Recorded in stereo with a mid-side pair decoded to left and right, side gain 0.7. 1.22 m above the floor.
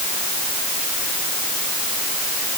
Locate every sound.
Only background noise.